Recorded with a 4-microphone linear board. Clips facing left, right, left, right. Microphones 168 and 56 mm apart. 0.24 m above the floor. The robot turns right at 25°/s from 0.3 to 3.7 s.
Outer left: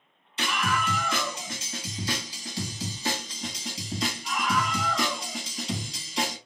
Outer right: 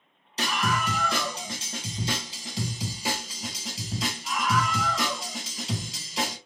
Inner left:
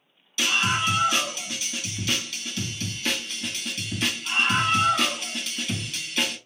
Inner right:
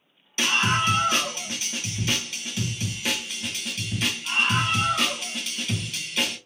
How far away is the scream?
About 1.7 m.